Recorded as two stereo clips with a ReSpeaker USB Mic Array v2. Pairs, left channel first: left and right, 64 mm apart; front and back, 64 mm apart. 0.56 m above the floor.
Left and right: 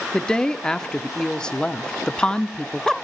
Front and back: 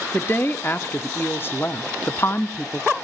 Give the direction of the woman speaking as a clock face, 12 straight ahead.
11 o'clock.